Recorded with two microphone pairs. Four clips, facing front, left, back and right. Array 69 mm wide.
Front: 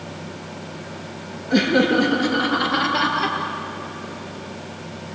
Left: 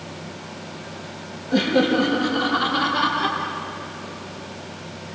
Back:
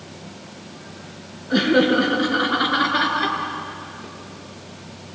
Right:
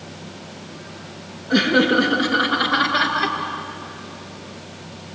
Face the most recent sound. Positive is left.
turn(degrees=-115)